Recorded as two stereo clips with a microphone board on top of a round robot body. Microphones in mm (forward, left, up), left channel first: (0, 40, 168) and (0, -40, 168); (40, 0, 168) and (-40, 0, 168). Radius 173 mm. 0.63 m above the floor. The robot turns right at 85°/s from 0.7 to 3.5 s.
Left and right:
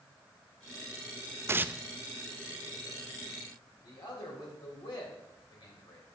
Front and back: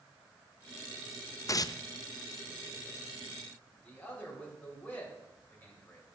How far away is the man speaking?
About 3.5 m.